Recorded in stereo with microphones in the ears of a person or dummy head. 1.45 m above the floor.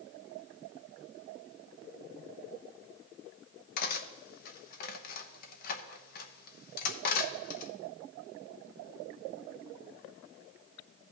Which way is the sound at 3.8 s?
60° left (ahead or behind).